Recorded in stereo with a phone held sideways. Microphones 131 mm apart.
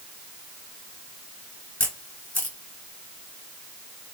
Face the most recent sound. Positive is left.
turn(degrees=15)  # may be behind; listen again after turning